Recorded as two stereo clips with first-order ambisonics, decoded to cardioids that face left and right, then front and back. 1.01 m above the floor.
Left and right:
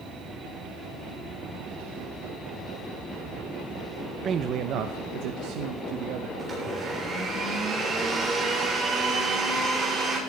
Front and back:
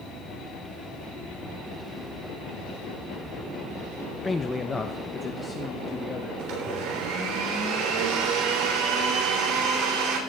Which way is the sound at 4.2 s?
70° right.